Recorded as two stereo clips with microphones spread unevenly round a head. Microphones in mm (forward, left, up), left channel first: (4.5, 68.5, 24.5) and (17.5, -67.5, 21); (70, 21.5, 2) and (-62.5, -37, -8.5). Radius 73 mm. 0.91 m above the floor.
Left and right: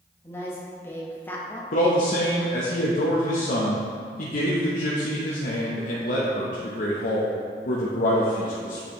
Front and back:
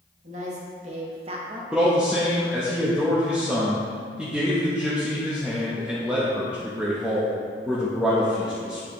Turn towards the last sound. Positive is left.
turn(degrees=120)